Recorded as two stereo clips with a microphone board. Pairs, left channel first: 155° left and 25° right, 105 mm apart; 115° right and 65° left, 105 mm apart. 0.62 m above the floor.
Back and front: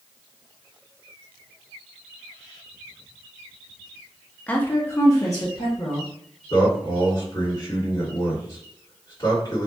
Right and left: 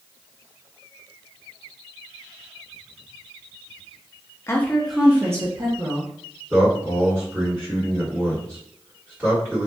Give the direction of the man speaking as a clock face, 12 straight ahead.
8 o'clock.